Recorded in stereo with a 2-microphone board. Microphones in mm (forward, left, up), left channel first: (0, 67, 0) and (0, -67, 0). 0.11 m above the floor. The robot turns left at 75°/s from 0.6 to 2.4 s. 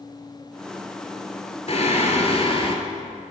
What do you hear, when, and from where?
1.7 s singing: 115° left, 0.9 m; by 2.8 s 60° left, 0.9 m